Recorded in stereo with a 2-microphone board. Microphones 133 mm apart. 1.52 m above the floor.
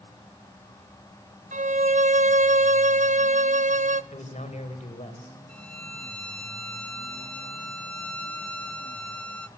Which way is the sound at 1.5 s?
65° right (ahead or behind).